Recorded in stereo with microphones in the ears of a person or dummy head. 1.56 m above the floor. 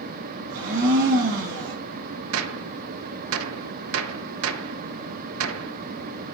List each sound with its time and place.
0.5 s a blender: 75° right (ahead or behind), 2 m
2.3 s a gunshot: 80° right, 0.8 m